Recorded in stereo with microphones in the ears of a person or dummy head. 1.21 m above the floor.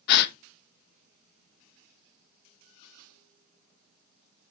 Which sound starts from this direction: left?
A gasp, at 0.1 s.